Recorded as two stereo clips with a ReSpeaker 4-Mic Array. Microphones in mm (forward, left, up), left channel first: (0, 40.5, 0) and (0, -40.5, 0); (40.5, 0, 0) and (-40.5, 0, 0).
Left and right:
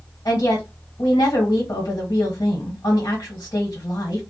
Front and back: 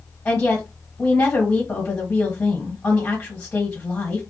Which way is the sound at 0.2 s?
60° left.